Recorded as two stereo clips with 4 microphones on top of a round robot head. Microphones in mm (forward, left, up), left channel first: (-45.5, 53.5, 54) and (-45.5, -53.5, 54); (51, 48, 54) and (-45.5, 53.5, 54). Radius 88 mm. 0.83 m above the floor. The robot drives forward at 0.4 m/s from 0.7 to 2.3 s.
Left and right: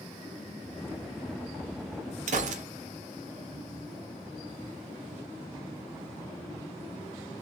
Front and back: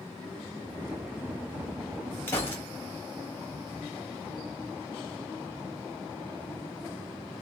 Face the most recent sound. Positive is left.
turn(degrees=-75)